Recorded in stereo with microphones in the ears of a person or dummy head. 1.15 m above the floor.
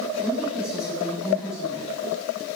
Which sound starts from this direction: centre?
A woman speaking, at 0.2 s.